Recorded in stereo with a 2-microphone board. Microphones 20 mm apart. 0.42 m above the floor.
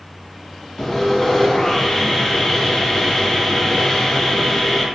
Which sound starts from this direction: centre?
Sawing, at 0.8 s.